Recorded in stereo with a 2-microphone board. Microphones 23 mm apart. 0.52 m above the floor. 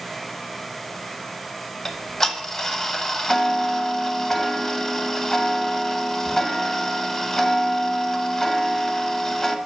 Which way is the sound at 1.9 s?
15° left (ahead or behind).